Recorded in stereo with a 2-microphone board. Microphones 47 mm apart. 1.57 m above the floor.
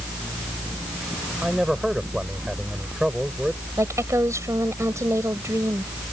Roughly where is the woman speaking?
Right.